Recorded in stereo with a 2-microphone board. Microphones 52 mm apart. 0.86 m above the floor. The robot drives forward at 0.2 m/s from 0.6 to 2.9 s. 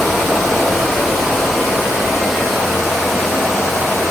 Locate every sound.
0.0 s running water: centre (ahead or behind), 2.5 m